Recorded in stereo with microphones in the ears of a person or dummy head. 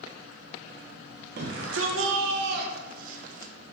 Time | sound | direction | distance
1.4 | a shout | 55° right (ahead or behind) | 0.5 m